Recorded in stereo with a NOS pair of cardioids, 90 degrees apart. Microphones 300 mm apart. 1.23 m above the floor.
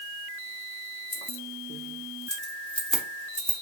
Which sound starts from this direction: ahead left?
Keys jangling, at 1.1 s.